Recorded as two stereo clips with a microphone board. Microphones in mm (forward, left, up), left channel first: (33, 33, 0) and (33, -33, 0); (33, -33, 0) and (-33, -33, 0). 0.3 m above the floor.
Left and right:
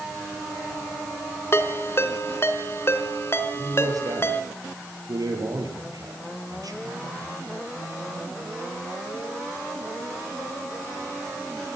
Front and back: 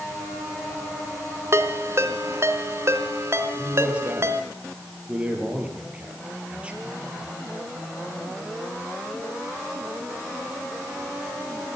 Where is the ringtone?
135° left, 1.8 m.